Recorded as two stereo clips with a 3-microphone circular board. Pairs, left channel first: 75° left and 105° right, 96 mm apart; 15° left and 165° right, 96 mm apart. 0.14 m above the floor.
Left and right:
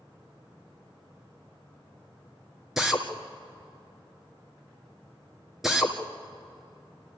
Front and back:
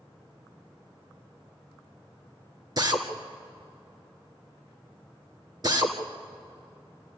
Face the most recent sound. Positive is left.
turn(degrees=170)